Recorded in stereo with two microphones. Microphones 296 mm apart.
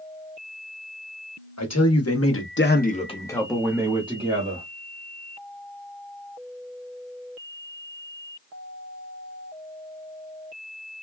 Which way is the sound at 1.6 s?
60° left (ahead or behind).